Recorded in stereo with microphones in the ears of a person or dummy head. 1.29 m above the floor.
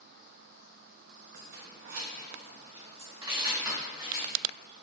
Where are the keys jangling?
70° right (ahead or behind), 1.1 m; by 4.3 s 15° right (ahead or behind), 1.9 m.